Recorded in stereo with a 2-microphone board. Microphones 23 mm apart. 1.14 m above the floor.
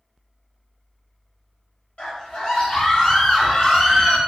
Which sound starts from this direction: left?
A scream, at 2.0 s.